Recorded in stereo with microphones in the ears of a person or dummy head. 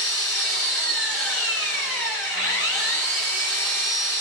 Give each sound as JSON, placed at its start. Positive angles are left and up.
{"t": 0.0, "sound": "an engine running", "side_deg": 10, "distance_m": 1.6}